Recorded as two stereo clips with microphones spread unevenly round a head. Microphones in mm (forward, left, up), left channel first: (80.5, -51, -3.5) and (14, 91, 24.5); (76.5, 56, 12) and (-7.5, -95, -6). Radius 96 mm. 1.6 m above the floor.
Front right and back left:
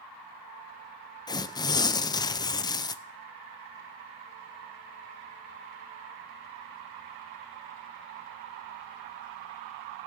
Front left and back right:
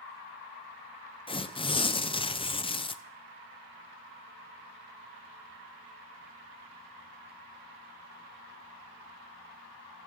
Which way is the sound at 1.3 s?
5° left.